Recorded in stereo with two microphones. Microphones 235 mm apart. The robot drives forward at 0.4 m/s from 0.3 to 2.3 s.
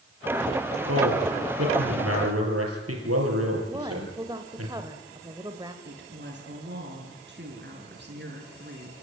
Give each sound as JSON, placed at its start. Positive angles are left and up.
{"t": 0.9, "sound": "a man speaking", "side_deg": -75, "distance_m": 5.5}
{"t": 3.7, "sound": "a woman speaking", "side_deg": -15, "distance_m": 1.5}
{"t": 5.8, "sound": "a woman speaking", "side_deg": -50, "distance_m": 4.5}